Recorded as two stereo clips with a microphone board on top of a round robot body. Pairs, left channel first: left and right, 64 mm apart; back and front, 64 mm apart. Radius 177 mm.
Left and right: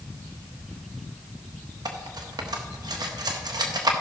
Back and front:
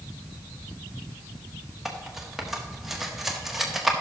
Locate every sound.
1.9 s cutlery clinking: 85° right, 1.2 m